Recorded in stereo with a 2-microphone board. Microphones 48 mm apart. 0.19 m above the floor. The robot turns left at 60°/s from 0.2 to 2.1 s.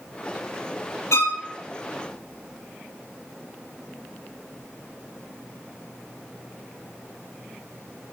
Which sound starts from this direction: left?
A violin, at 1.1 s.